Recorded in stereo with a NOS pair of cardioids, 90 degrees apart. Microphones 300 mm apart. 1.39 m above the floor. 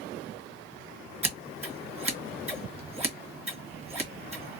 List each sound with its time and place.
1.2 s scissors: 20° right, 1.4 m